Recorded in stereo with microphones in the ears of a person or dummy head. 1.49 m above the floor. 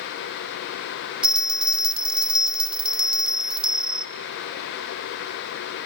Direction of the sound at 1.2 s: 5° right (ahead or behind).